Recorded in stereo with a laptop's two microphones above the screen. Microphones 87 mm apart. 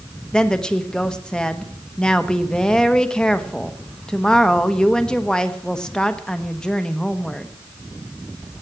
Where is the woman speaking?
10° left (ahead or behind), 1.0 m.